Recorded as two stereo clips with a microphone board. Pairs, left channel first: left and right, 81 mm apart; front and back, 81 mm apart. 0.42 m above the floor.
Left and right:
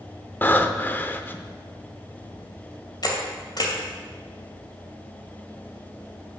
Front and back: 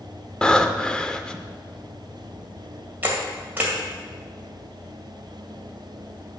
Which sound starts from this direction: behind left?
A camera shutter, at 3.0 s.